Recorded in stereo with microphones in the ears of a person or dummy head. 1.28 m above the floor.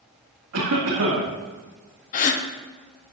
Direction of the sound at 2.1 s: 45° left (ahead or behind).